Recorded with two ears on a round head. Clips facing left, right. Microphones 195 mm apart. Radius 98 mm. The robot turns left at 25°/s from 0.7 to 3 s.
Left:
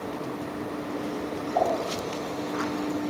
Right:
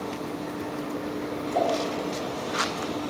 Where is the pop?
45° right (ahead or behind), 6 m; by 3.0 s 10° right (ahead or behind), 6 m.